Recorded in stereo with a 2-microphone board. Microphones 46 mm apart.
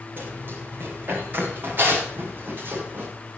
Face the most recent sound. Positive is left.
turn(degrees=-50)  # may be behind; listen again after turning